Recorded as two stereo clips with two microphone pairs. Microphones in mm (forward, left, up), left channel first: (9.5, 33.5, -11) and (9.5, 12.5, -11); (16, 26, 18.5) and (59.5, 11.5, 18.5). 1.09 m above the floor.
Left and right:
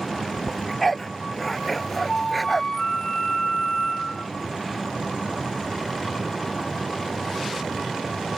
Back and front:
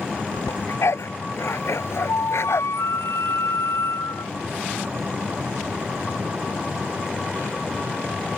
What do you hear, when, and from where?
0.5 s a dog barking: 175° left; by 2.7 s straight behind
2.1 s a flute: 160° left